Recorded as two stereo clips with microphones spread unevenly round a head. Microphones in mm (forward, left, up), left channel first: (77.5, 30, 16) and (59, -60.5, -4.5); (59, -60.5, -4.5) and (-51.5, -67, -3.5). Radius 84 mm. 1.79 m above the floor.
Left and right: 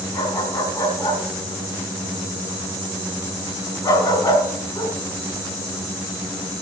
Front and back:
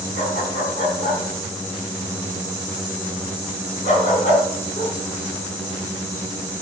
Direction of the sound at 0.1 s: 35° left.